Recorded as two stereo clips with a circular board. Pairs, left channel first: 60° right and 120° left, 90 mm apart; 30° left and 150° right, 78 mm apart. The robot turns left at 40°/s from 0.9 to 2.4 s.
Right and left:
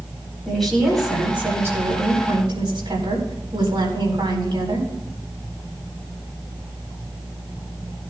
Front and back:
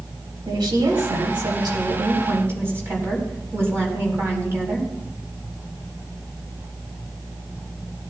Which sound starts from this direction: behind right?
A woman speaking, at 0.5 s.